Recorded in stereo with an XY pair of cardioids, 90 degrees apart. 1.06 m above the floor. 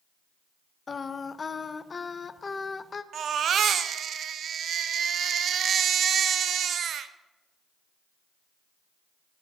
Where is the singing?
40° left, 0.5 m.